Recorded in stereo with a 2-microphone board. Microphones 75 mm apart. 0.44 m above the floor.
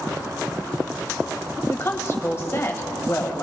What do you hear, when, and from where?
1.7 s a woman speaking: 35° left (ahead or behind), 1.9 m